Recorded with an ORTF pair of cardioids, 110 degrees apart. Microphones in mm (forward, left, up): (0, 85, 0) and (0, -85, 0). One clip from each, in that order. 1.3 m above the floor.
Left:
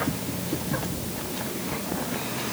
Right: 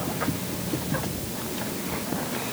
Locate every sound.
Only background noise.